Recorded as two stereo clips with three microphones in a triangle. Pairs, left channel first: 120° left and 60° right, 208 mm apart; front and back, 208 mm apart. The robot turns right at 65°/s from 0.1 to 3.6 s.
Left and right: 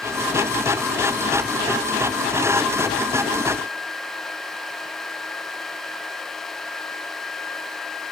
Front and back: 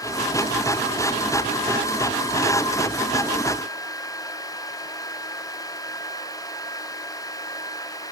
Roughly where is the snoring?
I don't hear snoring.